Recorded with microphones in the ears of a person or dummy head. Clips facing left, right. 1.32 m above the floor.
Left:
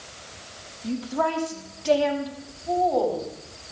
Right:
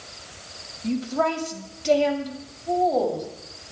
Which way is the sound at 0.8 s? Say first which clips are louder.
Right 2 dB; 30° right (ahead or behind).